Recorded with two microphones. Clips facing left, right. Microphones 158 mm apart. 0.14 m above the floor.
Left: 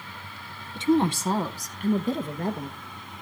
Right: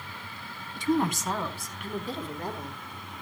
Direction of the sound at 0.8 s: 20° left (ahead or behind).